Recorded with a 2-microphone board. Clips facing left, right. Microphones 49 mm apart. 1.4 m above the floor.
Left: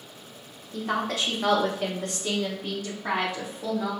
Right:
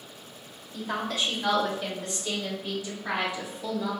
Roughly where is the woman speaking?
Left.